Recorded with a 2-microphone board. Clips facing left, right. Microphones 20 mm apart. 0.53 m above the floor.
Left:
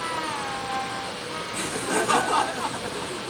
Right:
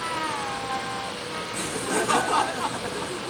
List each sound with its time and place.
1.5 s laughter: 20° left (ahead or behind); by 3.3 s 15° right (ahead or behind)